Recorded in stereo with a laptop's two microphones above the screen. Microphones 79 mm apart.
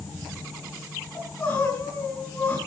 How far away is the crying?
About 7 m.